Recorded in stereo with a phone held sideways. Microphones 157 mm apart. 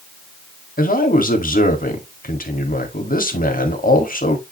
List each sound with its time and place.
0.8 s a man speaking: 60° left (ahead or behind), 2.0 m